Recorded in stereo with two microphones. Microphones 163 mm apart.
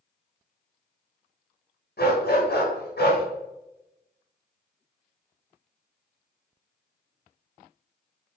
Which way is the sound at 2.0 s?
80° left.